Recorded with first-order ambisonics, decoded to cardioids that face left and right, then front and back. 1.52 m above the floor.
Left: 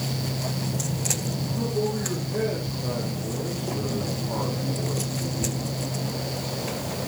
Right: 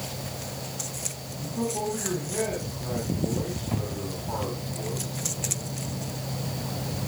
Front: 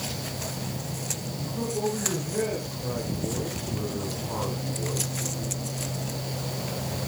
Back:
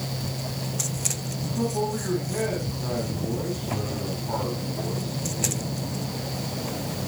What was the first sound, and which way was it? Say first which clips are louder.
A man speaking: right 1 dB, back 2 dB; 155° right.